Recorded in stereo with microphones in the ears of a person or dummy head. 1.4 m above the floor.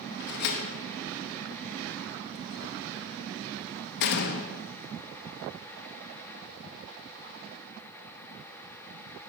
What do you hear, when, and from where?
0.2 s a door slam: 60° left (ahead or behind), 1.1 m